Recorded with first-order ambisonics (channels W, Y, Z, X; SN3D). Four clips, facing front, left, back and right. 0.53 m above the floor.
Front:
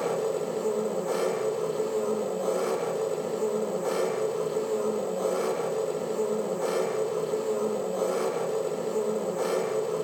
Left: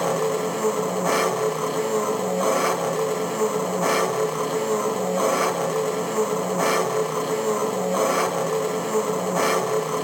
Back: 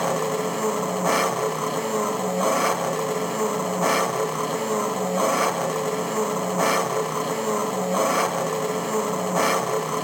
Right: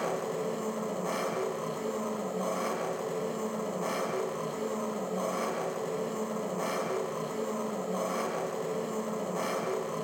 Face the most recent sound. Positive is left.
turn(degrees=145)